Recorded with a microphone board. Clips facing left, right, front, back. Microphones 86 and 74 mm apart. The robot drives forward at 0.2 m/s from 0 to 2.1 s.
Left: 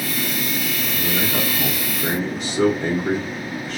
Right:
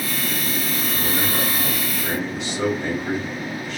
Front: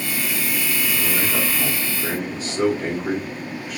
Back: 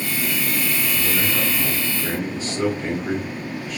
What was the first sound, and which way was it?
A man speaking, 55° left.